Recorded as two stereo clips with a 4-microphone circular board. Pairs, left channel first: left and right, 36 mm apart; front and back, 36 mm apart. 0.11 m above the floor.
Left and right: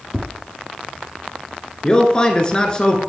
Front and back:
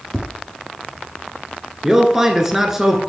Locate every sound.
0.1 s tapping: 115° left, 1.4 m
1.8 s a man speaking: 115° left, 1.3 m